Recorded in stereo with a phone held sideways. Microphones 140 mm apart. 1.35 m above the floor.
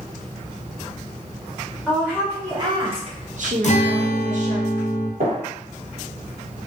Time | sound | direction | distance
1.9 | a woman speaking | 5° right (ahead or behind) | 0.9 m
3.6 | a guitar | 55° left (ahead or behind) | 0.6 m
5.2 | a gunshot | 90° right | 1.4 m